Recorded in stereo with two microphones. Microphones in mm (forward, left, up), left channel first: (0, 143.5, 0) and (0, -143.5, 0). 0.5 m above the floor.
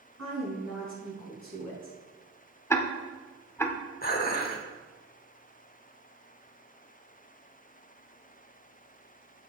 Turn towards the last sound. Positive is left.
turn(degrees=35)  # may be behind; listen again after turning